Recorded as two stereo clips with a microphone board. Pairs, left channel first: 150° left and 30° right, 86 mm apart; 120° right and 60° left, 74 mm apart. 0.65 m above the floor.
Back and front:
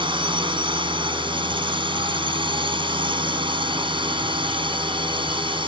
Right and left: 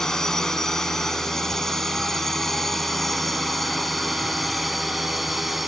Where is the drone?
40° right; by 5.7 s 30° right.